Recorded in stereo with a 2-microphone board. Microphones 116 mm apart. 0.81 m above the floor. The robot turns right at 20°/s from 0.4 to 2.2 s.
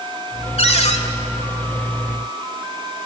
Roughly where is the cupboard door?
Left.